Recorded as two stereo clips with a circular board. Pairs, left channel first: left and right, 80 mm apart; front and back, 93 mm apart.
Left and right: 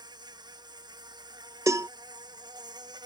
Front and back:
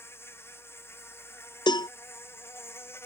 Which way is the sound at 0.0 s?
65° right.